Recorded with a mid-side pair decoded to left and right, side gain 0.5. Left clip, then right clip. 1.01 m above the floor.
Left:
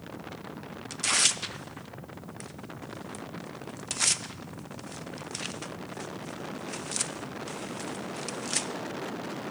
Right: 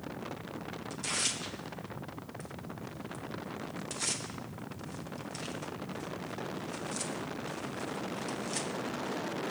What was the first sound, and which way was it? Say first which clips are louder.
Tearing paper: left 8 dB; 55° left.